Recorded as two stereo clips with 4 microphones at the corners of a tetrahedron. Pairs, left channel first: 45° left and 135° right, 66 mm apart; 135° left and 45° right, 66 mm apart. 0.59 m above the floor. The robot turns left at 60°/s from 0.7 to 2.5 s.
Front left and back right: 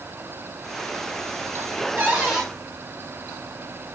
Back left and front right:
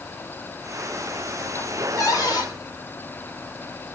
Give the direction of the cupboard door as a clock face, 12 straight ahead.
7 o'clock.